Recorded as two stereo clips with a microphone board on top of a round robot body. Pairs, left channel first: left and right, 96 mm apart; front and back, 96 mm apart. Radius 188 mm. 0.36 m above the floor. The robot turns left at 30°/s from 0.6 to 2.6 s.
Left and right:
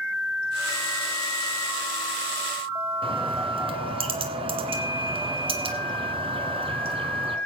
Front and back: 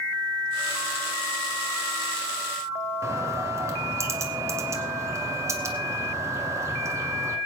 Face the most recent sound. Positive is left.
turn(degrees=-120)